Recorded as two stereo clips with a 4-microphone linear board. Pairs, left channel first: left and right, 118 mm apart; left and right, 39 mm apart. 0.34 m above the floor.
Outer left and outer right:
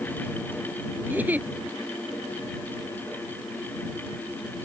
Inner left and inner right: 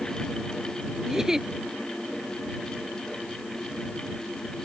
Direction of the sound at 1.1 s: 15° right (ahead or behind).